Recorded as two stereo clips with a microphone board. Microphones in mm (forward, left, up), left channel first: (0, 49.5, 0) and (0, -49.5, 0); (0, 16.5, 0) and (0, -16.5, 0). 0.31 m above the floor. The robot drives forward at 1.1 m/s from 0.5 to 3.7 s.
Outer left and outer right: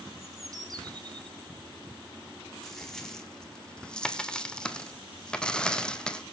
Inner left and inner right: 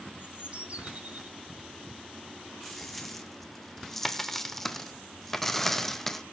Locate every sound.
0.2 s a bird: 35° right (ahead or behind), 2.0 m; by 1.3 s 55° right (ahead or behind), 1.4 m
2.6 s a dropped coin: 5° left (ahead or behind), 2.5 m; by 6.2 s 10° left (ahead or behind), 1.2 m